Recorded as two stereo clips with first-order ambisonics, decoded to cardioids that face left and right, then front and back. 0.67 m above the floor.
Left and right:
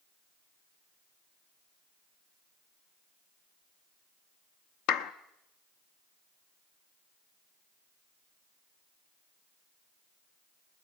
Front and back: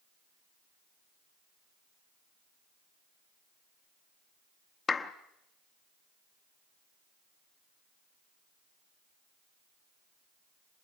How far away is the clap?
About 0.8 m.